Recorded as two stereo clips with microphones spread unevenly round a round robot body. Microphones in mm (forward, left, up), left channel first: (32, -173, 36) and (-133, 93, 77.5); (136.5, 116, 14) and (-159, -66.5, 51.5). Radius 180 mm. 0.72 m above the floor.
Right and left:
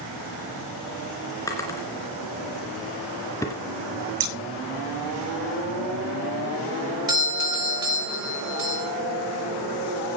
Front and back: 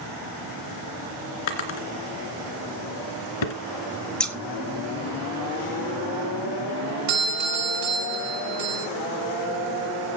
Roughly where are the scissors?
Behind left.